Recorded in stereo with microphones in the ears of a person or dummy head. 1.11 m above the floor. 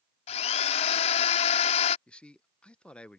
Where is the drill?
40° left (ahead or behind).